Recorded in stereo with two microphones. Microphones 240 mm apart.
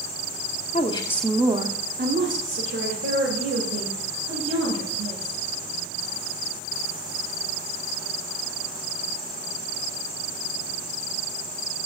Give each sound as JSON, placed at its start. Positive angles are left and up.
{"t": 0.7, "sound": "a woman speaking", "side_deg": 30, "distance_m": 0.8}